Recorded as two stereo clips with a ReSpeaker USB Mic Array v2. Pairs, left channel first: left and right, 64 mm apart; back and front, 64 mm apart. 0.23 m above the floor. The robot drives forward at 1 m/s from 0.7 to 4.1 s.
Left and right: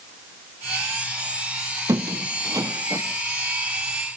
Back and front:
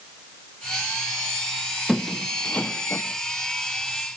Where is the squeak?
85° right, 1.3 m; by 3.0 s 130° right, 1.6 m.